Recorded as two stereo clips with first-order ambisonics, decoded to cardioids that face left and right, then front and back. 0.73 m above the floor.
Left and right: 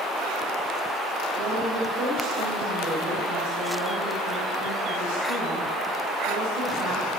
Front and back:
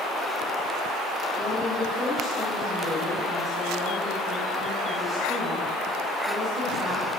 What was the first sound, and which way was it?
A woman speaking, 100° right.